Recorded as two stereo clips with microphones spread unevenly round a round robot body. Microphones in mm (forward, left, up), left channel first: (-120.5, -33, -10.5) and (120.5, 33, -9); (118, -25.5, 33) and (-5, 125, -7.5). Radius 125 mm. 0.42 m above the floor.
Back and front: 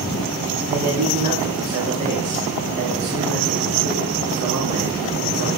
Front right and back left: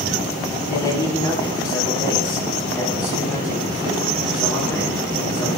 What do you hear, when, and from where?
0.7 s a man speaking: 30° left, 4 m